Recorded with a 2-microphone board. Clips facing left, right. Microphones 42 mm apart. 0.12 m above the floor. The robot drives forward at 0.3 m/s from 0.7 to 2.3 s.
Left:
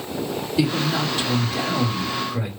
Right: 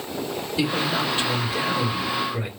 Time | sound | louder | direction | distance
0.6 | a man speaking | left 2 dB | 5° right (ahead or behind) | 2 m